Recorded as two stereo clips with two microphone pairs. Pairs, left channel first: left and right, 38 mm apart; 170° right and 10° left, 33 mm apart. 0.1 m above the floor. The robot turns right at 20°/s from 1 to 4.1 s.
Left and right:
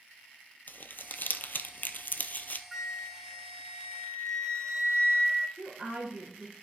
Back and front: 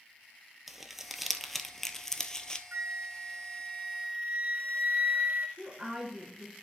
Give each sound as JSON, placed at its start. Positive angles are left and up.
{"t": 0.7, "sound": "crumpling", "azimuth_deg": 95, "distance_m": 0.6}
{"t": 2.7, "sound": "a flute", "azimuth_deg": 0, "distance_m": 1.1}
{"t": 5.6, "sound": "a woman speaking", "azimuth_deg": -80, "distance_m": 2.0}